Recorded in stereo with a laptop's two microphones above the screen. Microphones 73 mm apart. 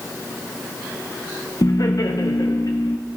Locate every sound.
1.6 s laughter: 55° left (ahead or behind), 0.7 m